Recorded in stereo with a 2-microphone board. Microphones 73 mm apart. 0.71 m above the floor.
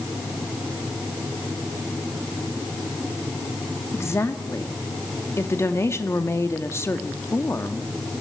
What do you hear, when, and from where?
3.9 s a woman speaking: 35° left (ahead or behind), 1.6 m